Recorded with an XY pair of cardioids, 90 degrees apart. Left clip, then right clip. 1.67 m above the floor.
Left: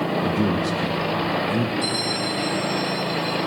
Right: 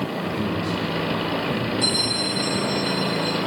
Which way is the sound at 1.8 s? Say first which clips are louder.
Right 2 dB; 40° right.